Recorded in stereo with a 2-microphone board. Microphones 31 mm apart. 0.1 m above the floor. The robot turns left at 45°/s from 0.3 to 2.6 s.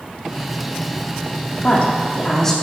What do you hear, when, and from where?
1.6 s a woman speaking: 55° left, 4 m; by 2.5 s 15° left, 4 m